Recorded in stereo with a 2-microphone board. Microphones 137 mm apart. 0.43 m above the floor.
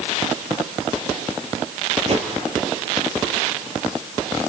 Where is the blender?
I don't hear a blender.